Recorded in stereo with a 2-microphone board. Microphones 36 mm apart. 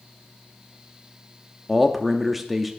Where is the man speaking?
5° right (ahead or behind), 0.7 m.